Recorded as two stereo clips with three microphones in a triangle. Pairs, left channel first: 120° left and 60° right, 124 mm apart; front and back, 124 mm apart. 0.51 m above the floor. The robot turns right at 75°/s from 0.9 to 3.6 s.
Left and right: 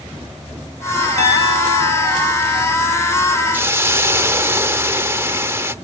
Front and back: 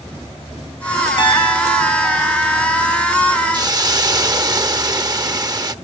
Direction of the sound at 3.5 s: 135° right.